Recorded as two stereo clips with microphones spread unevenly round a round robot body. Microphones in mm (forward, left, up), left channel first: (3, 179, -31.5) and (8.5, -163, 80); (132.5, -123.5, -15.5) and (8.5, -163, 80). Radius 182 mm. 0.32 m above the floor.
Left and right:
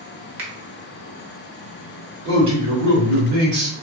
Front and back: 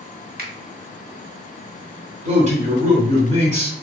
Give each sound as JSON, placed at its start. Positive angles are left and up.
{"t": 0.4, "sound": "a finger snap", "azimuth_deg": -125, "distance_m": 0.9}
{"t": 2.2, "sound": "a man speaking", "azimuth_deg": -95, "distance_m": 1.5}